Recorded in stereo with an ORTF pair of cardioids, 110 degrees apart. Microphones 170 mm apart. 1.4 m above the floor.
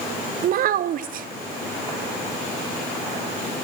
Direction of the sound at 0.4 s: 55° right.